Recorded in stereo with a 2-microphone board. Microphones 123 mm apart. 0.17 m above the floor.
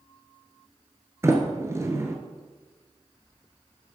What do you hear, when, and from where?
1.2 s a sliding door: 25° right (ahead or behind), 1.6 m